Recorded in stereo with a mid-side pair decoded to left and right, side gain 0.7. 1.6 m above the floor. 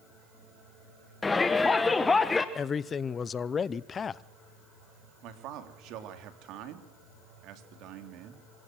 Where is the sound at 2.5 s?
30° left, 0.7 m.